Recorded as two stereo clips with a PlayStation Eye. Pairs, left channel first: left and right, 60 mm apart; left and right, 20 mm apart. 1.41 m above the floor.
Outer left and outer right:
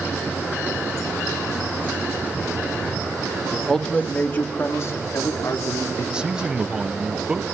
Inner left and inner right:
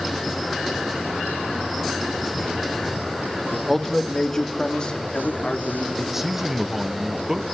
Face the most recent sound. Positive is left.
turn(degrees=-15)  # may be behind; listen again after turning